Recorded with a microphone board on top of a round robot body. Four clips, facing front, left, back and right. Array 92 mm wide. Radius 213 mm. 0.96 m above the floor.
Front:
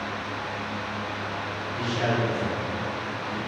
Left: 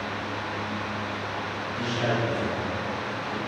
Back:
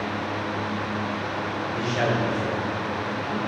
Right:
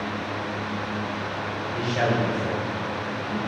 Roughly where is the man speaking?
Behind right.